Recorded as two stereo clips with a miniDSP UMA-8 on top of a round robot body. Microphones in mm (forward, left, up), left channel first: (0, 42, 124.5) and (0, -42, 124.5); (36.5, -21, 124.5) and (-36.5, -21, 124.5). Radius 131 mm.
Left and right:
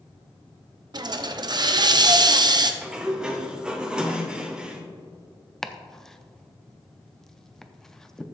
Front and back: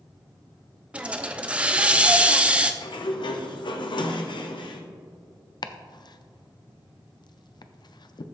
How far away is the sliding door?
About 0.8 m.